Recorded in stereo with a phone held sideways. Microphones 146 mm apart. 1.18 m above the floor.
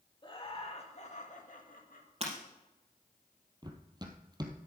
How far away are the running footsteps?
About 1.4 m.